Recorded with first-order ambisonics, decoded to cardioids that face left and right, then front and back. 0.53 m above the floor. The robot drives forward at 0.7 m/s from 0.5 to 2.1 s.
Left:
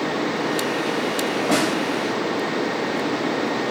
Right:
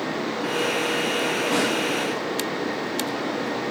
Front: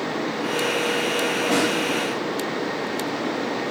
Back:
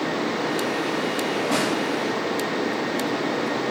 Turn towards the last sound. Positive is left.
turn(degrees=95)